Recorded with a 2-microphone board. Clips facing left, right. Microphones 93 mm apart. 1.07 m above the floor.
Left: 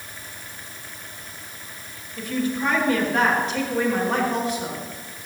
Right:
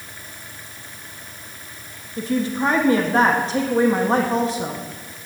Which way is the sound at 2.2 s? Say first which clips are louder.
Right 3 dB; 30° right (ahead or behind).